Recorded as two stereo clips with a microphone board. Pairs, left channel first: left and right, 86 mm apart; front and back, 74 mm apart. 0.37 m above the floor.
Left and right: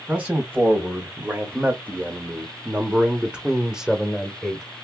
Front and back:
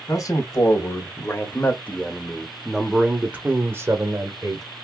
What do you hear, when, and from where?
0.1 s a man speaking: 25° right, 1.9 m; by 4.7 s 175° right, 1.5 m